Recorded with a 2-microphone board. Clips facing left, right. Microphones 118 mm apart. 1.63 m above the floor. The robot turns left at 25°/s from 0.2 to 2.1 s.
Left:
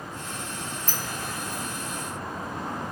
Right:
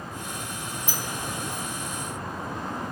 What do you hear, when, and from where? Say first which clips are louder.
0.9 s a sliding door: right 1 dB; 10° right (ahead or behind), 0.7 m; by 1.6 s 30° right (ahead or behind), 0.7 m